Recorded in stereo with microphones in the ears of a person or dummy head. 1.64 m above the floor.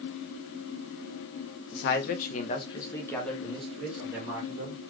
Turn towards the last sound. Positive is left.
turn(degrees=-10)  # may be behind; listen again after turning